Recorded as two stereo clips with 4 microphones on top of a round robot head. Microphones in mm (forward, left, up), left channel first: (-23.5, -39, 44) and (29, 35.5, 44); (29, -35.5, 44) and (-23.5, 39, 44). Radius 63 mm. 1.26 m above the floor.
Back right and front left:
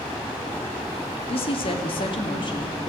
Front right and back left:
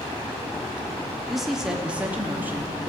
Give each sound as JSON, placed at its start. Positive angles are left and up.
{"t": 1.3, "sound": "a woman speaking", "azimuth_deg": -145, "distance_m": 3.0}